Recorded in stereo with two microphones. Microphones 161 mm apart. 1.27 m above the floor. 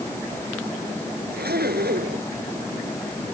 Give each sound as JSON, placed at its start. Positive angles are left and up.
{"t": 1.3, "sound": "a zipper", "side_deg": -80}